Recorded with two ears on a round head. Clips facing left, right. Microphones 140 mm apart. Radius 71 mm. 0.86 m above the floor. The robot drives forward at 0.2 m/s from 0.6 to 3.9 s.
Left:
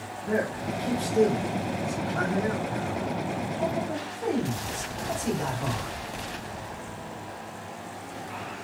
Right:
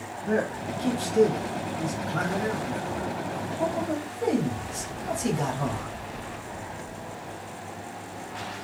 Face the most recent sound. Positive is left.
turn(degrees=-70)  # may be behind; listen again after turning